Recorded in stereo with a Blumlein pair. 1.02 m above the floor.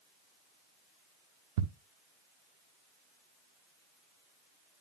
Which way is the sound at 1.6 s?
50° right.